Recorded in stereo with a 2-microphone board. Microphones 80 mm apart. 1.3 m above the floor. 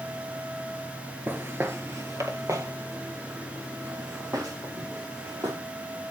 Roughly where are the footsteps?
Right.